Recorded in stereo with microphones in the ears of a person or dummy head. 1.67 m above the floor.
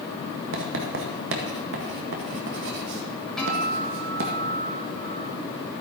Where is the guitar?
Centre (ahead or behind), 2.5 m.